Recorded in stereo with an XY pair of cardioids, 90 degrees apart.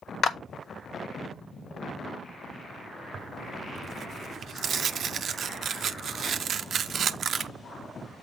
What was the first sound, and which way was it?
A clap, 60° left.